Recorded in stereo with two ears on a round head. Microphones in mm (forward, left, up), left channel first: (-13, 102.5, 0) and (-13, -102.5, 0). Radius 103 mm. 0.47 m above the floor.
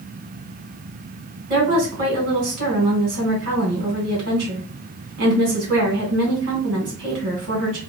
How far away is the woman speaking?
About 2 m.